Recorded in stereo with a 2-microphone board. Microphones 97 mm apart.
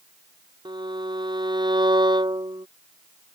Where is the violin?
55° right (ahead or behind).